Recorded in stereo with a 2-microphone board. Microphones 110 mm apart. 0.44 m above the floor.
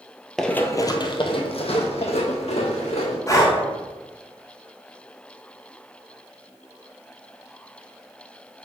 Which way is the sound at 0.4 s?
Centre (ahead or behind).